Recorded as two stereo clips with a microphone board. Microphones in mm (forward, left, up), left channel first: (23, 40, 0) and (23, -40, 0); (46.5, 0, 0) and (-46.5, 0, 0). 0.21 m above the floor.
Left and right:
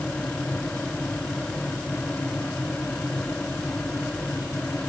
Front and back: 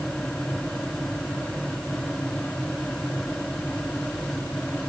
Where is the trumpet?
No trumpet in this recording.